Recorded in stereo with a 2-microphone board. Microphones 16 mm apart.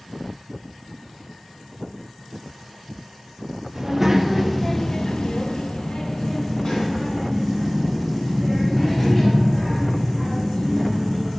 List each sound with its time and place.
3.8 s a child speaking: 20° right (ahead or behind), 1.0 m; by 11.3 s 50° left (ahead or behind), 4.5 m